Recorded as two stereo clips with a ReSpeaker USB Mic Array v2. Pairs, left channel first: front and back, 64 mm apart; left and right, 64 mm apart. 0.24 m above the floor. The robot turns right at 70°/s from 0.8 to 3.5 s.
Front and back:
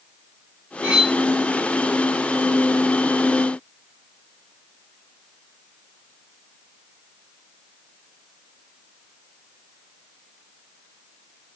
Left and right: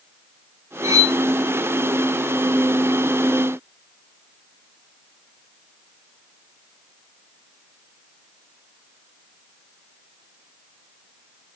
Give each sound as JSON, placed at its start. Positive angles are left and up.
{"t": 0.8, "sound": "cutlery clinking", "azimuth_deg": -115, "distance_m": 1.6}